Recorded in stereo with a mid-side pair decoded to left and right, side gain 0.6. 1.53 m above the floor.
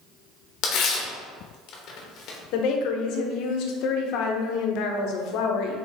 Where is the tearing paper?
60° left, 1.0 m.